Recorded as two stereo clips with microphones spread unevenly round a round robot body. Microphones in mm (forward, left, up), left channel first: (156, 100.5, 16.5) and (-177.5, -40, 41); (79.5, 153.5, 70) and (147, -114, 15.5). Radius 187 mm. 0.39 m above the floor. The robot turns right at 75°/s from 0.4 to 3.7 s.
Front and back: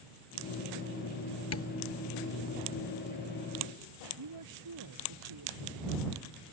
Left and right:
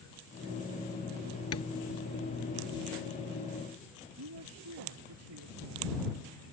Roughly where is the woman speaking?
Behind right.